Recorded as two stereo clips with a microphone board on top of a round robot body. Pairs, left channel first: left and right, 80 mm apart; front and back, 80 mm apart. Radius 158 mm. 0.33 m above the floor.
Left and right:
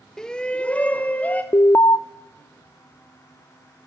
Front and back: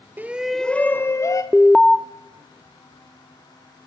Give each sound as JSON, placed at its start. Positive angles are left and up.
{"t": 0.2, "sound": "a shout", "azimuth_deg": 165, "distance_m": 0.9}
{"t": 1.5, "sound": "an alarm", "azimuth_deg": 80, "distance_m": 0.6}